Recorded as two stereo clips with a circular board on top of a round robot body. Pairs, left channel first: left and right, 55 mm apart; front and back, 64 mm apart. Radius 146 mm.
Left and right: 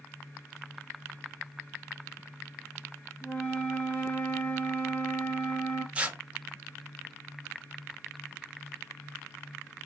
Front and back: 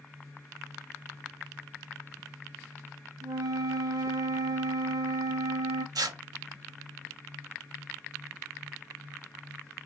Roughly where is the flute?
Behind left.